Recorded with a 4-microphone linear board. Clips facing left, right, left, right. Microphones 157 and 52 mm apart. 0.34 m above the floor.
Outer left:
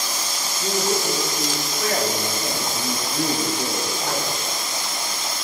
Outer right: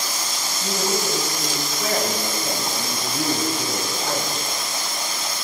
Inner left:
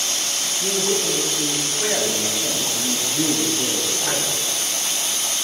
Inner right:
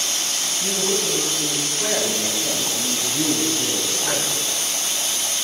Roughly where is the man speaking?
Left.